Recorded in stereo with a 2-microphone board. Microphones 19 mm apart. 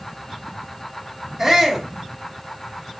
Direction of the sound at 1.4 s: 10° right (ahead or behind).